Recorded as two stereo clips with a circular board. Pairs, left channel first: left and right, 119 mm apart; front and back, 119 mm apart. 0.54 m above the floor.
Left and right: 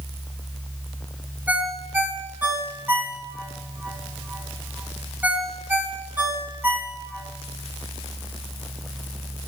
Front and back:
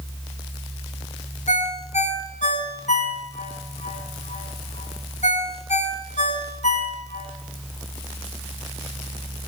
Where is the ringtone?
15° right, 2.5 m.